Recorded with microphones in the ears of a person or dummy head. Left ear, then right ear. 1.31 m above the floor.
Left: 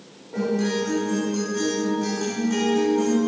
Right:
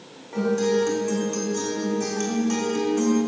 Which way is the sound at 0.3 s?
55° right (ahead or behind).